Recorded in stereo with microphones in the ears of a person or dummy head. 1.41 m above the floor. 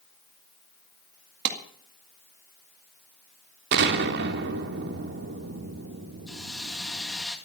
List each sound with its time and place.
1.4 s a clap: 65° right (ahead or behind), 2 m
3.7 s an explosion: 60° right (ahead or behind), 1.9 m
6.3 s a hiss: centre (ahead or behind), 2 m